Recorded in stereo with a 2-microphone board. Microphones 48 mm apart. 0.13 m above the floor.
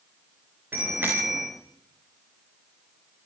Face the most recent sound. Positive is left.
turn(degrees=-40)  # may be behind; listen again after turning